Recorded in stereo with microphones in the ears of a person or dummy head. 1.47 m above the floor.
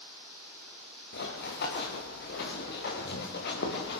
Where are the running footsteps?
55° left (ahead or behind), 5.5 m; by 4.0 s 60° left (ahead or behind), 7.5 m.